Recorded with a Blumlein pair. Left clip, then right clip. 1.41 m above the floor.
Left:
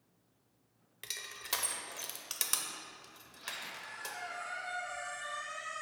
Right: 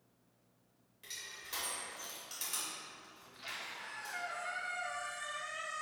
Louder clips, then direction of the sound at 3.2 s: Left 1 dB; 40° right.